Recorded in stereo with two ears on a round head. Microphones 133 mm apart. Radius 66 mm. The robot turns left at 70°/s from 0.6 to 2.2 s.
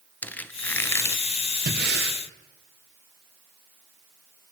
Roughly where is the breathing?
Ahead right.